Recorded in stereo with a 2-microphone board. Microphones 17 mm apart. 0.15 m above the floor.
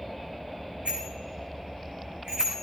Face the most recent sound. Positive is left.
turn(degrees=-80)